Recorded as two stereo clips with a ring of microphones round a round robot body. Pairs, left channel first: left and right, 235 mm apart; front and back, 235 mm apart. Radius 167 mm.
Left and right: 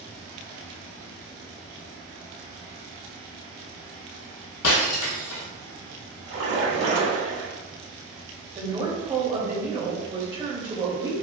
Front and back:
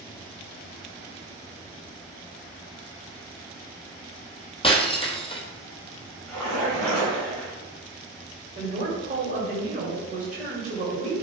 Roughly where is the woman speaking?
Behind right.